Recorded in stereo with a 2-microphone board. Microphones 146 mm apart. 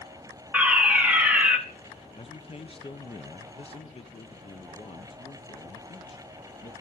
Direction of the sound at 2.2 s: 40° left (ahead or behind).